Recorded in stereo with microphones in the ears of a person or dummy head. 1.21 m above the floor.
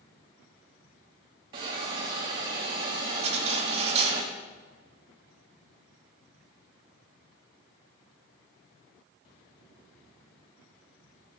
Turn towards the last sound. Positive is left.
turn(degrees=-45)  # may be behind; listen again after turning